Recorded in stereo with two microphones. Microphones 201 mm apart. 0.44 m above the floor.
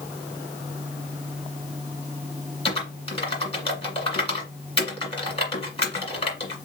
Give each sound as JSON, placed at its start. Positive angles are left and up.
{"t": 2.6, "sound": "typing on a keyboard", "side_deg": 30, "distance_m": 1.8}